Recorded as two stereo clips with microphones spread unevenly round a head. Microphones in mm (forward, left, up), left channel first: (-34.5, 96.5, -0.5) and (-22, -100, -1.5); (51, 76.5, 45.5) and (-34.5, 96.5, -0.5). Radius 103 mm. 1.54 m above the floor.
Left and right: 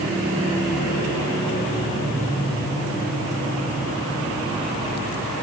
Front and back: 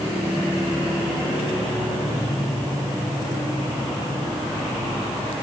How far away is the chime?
I don't hear a chime.